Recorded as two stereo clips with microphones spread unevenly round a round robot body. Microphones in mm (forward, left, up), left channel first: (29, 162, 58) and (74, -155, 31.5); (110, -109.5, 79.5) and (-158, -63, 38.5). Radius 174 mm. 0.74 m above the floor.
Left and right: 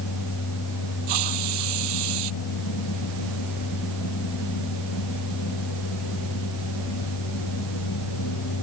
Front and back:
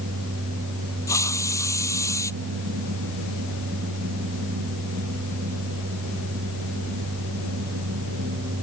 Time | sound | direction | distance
1.1 | a hiss | 90° right | ?